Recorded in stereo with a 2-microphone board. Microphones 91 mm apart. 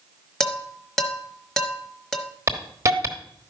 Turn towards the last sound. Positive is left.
turn(degrees=-30)  # may be behind; listen again after turning